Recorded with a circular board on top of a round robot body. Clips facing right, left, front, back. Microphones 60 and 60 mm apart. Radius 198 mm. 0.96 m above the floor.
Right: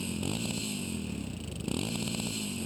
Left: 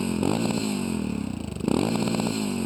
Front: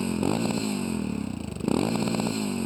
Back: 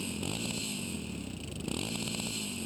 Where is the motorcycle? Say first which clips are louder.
Left 10 dB, front 11 dB; 50° left.